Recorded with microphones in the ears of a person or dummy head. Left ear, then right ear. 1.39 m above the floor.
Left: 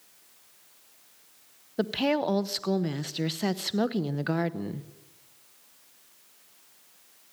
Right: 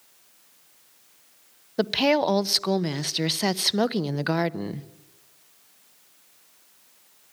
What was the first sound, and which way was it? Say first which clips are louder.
A woman speaking: right 5 dB; 25° right (ahead or behind).